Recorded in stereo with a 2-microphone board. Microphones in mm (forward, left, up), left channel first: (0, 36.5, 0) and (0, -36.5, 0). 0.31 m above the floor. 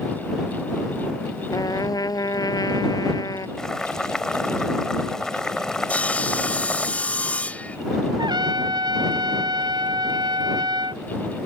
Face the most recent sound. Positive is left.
turn(degrees=-85)